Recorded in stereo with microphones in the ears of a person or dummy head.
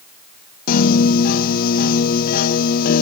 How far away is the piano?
About 0.6 m.